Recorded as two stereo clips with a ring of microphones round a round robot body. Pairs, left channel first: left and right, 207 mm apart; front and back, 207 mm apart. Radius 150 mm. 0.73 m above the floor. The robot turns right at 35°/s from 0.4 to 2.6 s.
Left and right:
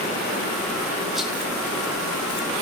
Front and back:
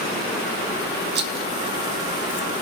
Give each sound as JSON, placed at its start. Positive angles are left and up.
{"t": 1.1, "sound": "a rattle", "azimuth_deg": 180, "distance_m": 1.1}